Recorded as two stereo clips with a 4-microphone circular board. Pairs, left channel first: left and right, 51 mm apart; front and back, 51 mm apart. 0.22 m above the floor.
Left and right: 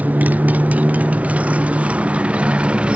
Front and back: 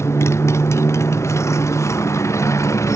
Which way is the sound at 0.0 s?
30° right.